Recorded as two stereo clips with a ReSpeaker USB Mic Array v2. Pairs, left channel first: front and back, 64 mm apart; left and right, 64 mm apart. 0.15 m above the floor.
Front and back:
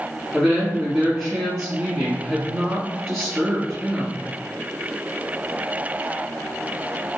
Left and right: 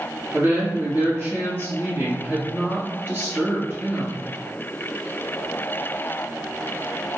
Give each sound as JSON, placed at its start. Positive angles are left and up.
{"t": 0.3, "sound": "a woman speaking", "azimuth_deg": -90, "distance_m": 1.4}